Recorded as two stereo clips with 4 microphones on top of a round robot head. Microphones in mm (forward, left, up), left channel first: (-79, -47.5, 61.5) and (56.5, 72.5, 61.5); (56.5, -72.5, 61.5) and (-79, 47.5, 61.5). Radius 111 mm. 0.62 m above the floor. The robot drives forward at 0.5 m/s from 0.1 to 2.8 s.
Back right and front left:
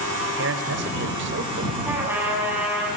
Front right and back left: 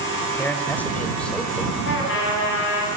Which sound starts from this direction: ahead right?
A trumpet, at 1.9 s.